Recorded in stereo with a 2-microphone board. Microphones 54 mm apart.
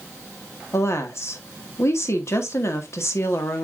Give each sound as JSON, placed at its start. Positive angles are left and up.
{"t": 0.7, "sound": "a woman speaking", "side_deg": 55, "distance_m": 1.4}